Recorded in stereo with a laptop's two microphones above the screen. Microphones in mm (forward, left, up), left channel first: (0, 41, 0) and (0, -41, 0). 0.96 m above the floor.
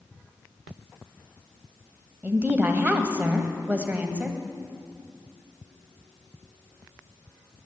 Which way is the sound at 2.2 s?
25° right (ahead or behind).